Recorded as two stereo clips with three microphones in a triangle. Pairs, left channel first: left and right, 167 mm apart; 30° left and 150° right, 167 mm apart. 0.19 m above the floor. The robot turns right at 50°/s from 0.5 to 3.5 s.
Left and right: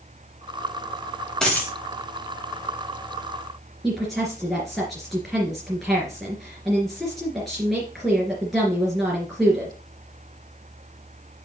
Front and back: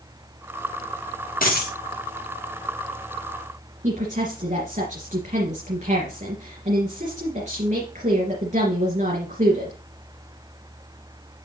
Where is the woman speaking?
Straight behind, 2.5 m.